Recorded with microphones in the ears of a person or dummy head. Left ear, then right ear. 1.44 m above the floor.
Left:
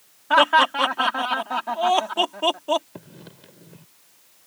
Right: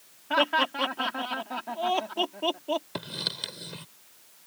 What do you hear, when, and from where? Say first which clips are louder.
0.3 s laughter: left 8 dB; 45° left (ahead or behind)
3.0 s writing: right 13 dB; 60° right (ahead or behind)